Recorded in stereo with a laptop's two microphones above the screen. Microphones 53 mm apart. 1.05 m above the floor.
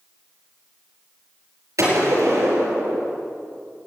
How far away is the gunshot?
About 5 m.